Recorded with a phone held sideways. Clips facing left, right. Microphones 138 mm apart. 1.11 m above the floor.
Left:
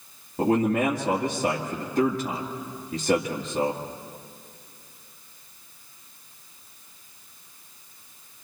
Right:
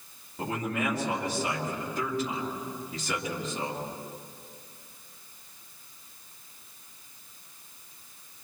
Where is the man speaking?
50° left (ahead or behind), 2 m.